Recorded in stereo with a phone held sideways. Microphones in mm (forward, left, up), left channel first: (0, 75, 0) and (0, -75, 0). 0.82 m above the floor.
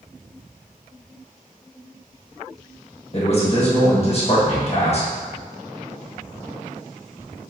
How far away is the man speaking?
About 1.0 m.